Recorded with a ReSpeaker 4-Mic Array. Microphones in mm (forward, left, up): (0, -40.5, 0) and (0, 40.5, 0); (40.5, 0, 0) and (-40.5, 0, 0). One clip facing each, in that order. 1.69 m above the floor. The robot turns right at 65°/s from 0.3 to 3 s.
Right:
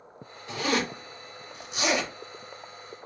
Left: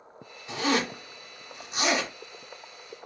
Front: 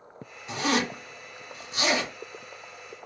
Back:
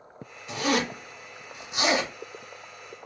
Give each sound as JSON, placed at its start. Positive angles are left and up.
{"t": 0.5, "sound": "a zipper", "azimuth_deg": 35, "distance_m": 1.9}